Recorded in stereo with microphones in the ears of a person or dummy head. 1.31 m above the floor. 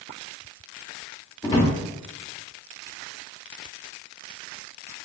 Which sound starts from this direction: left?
A drawer, at 1.4 s.